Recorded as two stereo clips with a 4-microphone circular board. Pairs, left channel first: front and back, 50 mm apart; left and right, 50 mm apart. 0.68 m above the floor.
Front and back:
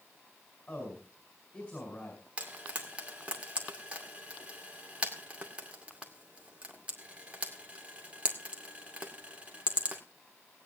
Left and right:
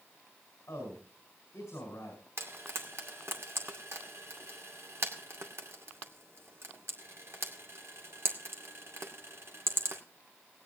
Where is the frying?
115° right, 2 m.